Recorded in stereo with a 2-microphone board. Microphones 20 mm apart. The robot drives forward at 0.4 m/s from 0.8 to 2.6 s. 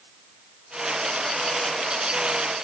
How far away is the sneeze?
No sneeze in this recording.